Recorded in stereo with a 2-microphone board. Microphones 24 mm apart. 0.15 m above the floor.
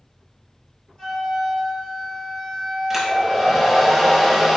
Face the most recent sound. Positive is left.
turn(degrees=-10)  # may be behind; listen again after turning